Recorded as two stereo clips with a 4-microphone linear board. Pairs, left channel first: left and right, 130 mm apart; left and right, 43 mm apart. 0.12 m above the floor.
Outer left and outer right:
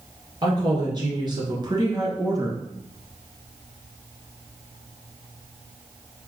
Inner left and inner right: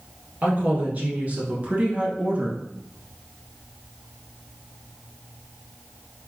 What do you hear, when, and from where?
0.4 s a woman speaking: 35° right (ahead or behind), 1.8 m; by 2.6 s 25° right (ahead or behind), 1.2 m